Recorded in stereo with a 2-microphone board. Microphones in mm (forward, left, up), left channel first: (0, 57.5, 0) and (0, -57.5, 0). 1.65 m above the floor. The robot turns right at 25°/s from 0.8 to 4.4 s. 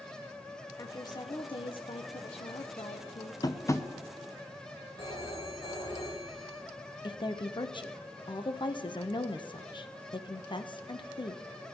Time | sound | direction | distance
0.8 | a woman speaking | 35° left | 0.9 m
3.4 | tapping | 35° left (ahead or behind) | 0.8 m
5.0 | a phone ringing | 60° left (ahead or behind) | 3.5 m
7.0 | a woman speaking | 45° left (ahead or behind) | 0.9 m